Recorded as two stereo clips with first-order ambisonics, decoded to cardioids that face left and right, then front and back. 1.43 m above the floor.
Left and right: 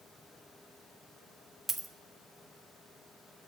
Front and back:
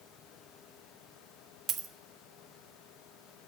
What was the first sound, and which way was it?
A dropped coin, 170° right.